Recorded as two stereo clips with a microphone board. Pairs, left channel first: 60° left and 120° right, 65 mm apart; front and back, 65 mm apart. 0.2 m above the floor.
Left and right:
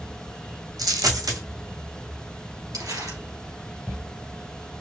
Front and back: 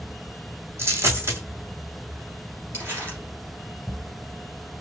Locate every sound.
0.8 s a dropped coin: 130° right, 1.6 m
2.7 s crumpling: 125° right, 2.5 m